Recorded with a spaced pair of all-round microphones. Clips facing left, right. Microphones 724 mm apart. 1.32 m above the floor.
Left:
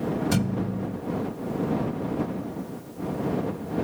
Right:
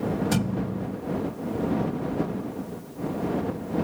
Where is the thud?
10° left (ahead or behind).